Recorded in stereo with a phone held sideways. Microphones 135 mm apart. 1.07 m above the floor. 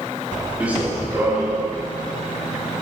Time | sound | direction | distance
0.6 | running footsteps | 10° right (ahead or behind) | 8.5 m